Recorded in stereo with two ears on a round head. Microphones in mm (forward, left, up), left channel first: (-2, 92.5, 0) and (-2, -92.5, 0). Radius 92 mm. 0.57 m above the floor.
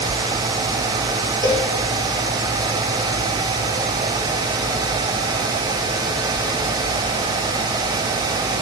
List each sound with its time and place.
1.4 s a cowbell: 20° left (ahead or behind), 3 m